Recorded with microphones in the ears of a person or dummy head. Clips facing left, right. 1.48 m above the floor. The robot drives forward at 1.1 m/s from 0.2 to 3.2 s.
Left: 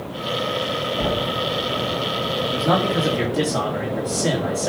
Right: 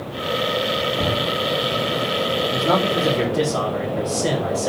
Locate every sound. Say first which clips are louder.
1.0 s knocking: even; 10° right (ahead or behind), 1.6 m; by 1.4 s 5° right (ahead or behind), 2.0 m
2.4 s a man speaking: left 1 dB; 5° right (ahead or behind), 3 m